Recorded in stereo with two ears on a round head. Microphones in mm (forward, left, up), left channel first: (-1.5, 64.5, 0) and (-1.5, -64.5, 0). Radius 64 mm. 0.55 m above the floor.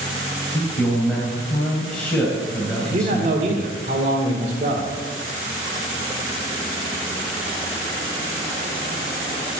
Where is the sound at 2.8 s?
55° right (ahead or behind), 1.9 m.